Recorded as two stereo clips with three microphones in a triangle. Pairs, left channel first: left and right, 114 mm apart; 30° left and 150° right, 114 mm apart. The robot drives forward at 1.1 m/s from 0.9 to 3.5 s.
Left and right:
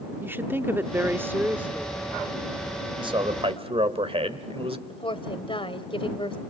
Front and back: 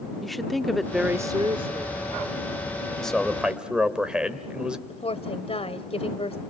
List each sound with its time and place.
0.2 s a woman speaking: 55° right, 0.7 m; by 2.0 s 170° right, 1.3 m
3.0 s a man speaking: 55° right, 2.5 m; by 4.8 s 70° right, 2 m
4.9 s a woman speaking: 55° left, 1.8 m